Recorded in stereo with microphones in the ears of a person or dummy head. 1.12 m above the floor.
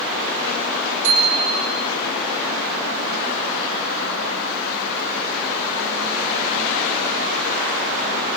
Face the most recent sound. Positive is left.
turn(degrees=-60)  # may be behind; listen again after turning